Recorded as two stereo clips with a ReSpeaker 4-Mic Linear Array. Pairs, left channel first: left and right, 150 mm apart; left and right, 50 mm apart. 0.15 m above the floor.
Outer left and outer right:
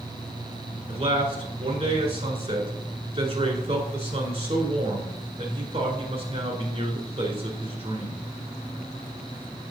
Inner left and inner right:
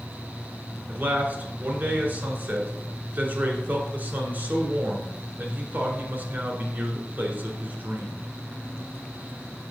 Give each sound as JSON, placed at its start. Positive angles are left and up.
{"t": 0.9, "sound": "a man speaking", "side_deg": -40, "distance_m": 1.6}